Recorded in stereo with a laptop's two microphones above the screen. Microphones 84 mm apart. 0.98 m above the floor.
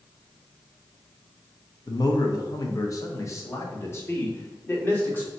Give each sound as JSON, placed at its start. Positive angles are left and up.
{"t": 1.9, "sound": "a man speaking", "side_deg": 50, "distance_m": 0.7}